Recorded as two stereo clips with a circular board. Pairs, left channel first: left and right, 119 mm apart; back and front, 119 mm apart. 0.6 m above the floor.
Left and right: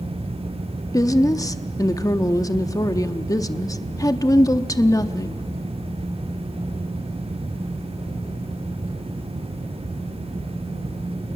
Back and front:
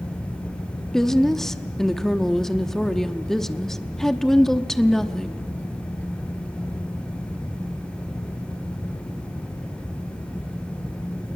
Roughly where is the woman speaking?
Left.